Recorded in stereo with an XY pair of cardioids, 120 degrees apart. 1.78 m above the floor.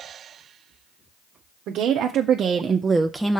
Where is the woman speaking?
70° right, 0.9 m; by 3.4 s 5° left, 0.6 m.